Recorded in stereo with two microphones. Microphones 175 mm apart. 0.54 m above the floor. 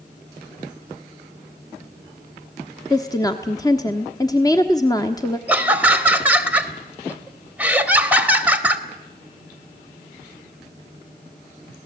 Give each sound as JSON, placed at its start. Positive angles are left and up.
{"t": 2.9, "sound": "a woman speaking", "side_deg": 20, "distance_m": 1.0}
{"t": 5.5, "sound": "laughter", "side_deg": -10, "distance_m": 2.0}